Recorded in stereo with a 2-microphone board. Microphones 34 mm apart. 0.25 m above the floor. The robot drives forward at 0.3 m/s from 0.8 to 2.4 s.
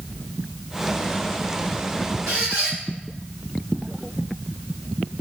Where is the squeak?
80° right, 1.8 m.